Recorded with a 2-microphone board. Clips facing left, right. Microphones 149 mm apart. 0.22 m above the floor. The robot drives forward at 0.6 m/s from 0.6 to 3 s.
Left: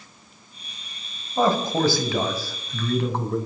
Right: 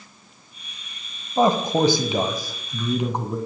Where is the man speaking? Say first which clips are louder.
Right 2 dB; 20° right (ahead or behind), 1.0 m; by 3.4 s 15° right (ahead or behind), 1.3 m.